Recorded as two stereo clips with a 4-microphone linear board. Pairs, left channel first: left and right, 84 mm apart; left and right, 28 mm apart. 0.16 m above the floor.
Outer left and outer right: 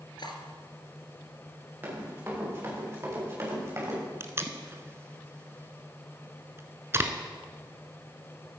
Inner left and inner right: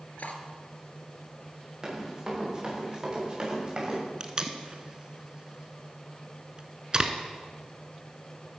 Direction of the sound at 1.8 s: 20° right (ahead or behind).